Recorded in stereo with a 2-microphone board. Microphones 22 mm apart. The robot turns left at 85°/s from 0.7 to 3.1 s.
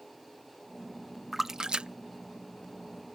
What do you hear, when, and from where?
1.3 s a splash: 10° right (ahead or behind); by 1.9 s 60° right (ahead or behind)